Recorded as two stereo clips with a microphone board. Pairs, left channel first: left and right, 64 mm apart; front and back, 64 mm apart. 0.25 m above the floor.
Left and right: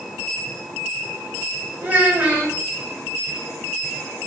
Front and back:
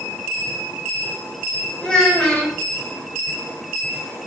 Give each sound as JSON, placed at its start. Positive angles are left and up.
{"t": 1.8, "sound": "a child speaking", "azimuth_deg": -65, "distance_m": 0.7}